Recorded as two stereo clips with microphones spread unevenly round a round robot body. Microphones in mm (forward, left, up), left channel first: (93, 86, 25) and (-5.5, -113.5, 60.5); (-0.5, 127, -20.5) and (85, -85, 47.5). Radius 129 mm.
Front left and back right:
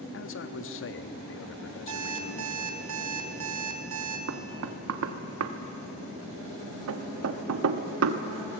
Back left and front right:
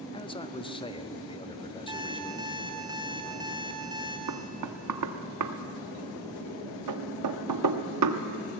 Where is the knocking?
95° right, 1.1 m.